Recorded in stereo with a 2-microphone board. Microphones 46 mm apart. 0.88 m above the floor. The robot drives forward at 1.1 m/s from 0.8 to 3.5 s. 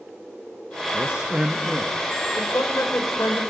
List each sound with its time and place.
0.9 s a man speaking: 25° right (ahead or behind), 0.9 m; by 2.0 s 15° right (ahead or behind), 1.6 m
2.4 s a woman speaking: 75° left (ahead or behind), 4 m